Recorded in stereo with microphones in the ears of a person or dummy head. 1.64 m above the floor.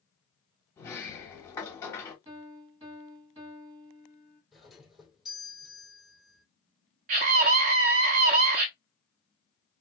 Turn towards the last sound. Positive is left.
turn(degrees=-35)  # may be behind; listen again after turning